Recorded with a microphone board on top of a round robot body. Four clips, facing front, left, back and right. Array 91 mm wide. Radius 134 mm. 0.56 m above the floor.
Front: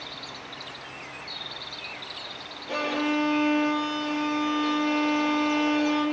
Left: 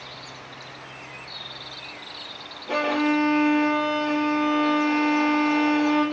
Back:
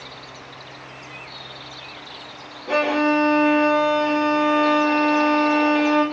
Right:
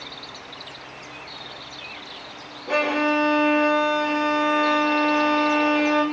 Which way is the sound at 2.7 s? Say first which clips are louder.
Right 1 dB, back 8 dB; 150° right.